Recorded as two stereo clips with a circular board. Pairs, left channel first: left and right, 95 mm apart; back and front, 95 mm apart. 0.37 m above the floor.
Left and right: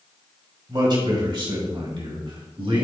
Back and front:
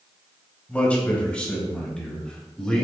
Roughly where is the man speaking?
Right.